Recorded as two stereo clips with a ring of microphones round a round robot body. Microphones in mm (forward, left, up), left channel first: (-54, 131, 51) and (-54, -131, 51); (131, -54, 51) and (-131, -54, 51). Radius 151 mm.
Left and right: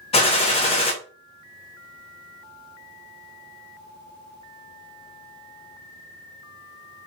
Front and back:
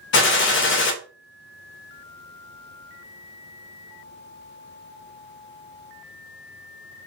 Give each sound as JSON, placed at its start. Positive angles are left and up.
{"t": 0.1, "sound": "a gunshot", "azimuth_deg": 25, "distance_m": 0.5}